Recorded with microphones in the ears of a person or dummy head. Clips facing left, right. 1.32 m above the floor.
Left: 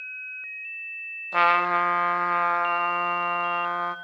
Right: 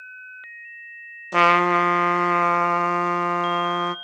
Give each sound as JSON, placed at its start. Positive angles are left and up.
{"t": 1.3, "sound": "a trumpet", "side_deg": -55, "distance_m": 0.5}